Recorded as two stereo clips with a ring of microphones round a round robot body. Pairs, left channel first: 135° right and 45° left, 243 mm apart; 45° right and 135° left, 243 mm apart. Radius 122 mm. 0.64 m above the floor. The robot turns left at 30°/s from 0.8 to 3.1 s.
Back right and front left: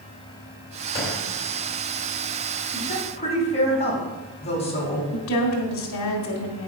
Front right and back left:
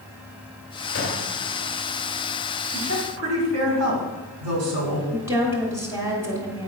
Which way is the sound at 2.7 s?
170° left.